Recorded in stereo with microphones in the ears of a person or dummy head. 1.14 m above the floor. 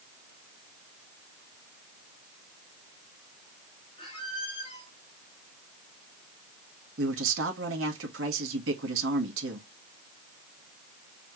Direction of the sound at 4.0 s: 35° left (ahead or behind).